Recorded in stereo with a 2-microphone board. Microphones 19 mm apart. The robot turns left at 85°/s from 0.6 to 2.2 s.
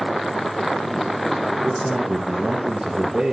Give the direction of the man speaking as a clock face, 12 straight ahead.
12 o'clock.